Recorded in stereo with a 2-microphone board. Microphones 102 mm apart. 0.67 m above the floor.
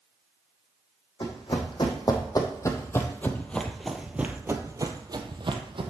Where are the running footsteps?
50° left (ahead or behind), 1.9 m; by 5.9 s 60° right (ahead or behind), 1.3 m.